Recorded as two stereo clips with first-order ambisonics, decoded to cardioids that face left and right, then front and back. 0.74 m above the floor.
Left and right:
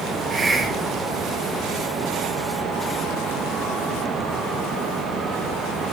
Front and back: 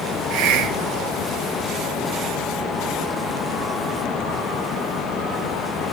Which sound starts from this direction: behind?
A hiss, at 0.3 s.